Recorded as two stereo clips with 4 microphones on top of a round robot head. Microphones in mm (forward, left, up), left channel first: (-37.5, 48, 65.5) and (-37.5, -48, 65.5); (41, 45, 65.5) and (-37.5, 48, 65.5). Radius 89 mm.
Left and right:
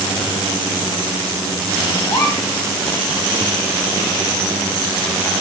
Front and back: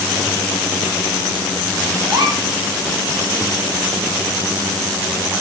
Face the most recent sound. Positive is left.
turn(degrees=145)